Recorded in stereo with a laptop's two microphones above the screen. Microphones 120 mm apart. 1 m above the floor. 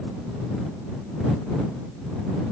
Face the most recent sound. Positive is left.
No sound to turn to.